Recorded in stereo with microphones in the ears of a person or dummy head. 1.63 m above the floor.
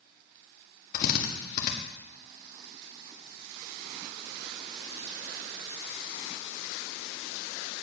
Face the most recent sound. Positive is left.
turn(degrees=45)  # may be behind; listen again after turning